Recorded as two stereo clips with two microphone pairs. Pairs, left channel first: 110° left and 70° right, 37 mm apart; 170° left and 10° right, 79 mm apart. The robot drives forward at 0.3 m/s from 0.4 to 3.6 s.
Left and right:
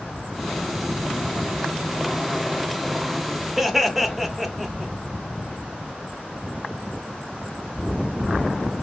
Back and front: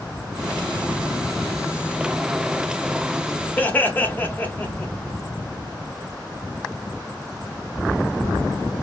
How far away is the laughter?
About 0.8 m.